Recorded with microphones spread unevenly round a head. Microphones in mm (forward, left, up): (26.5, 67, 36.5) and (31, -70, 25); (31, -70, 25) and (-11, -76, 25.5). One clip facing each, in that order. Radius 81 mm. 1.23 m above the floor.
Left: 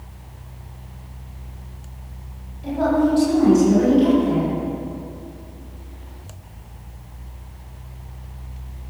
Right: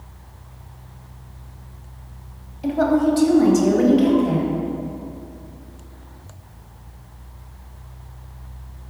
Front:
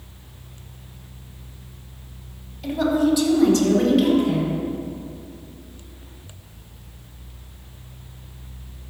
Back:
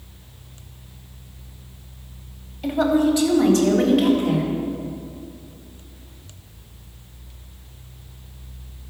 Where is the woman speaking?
120° right, 3.5 m; by 4.5 s 125° right, 4.5 m.